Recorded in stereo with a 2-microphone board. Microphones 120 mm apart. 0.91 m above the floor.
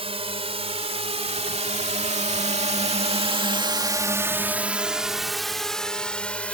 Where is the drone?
55° right (ahead or behind); by 6.5 s 10° left (ahead or behind).